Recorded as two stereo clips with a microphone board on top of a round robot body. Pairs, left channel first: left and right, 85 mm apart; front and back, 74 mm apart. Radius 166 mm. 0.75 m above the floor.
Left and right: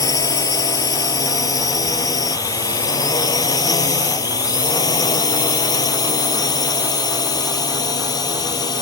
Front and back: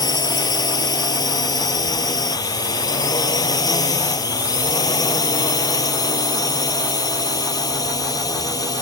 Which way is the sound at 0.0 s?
40° left.